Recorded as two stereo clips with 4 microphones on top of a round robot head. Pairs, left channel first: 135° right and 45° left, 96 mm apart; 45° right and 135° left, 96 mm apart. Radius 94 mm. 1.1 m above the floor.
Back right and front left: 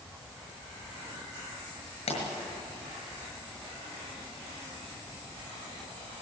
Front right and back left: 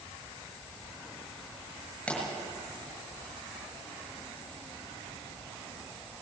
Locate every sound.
2.1 s a pop: 125° right, 6.5 m